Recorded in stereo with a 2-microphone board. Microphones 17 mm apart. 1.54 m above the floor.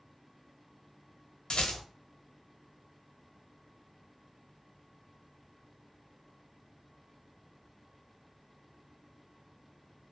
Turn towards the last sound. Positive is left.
turn(degrees=75)  # may be behind; listen again after turning